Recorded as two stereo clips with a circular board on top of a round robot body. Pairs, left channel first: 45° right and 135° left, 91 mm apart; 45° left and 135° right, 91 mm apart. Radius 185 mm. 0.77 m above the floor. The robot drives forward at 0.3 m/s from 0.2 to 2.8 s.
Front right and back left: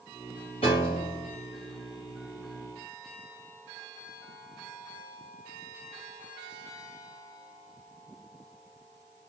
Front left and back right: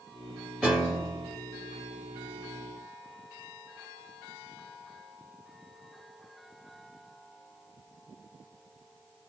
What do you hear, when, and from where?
0.6 s a piano: 40° right, 0.5 m; by 1.4 s 95° right, 0.5 m